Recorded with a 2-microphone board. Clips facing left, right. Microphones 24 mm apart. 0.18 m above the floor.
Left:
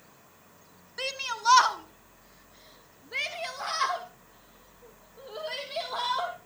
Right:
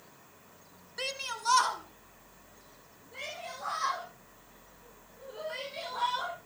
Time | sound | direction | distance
1.0 | a shout | 10° left (ahead or behind) | 1.9 m